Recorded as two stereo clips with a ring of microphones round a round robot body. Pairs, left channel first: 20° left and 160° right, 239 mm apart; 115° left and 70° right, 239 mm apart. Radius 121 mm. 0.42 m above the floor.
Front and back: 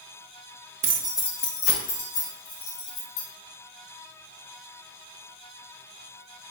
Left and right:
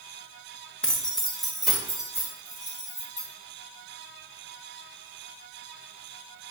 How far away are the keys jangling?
About 0.5 m.